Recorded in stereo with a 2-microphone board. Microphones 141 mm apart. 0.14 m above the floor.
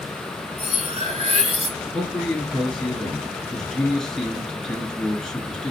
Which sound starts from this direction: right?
Cutlery clinking, at 0.6 s.